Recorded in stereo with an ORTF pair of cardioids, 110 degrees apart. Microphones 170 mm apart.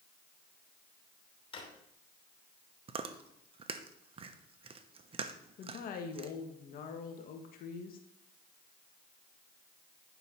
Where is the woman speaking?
65° left, 1.5 m.